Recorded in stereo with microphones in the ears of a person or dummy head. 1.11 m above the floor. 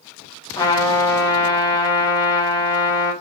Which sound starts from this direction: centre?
A trumpet, at 0.6 s.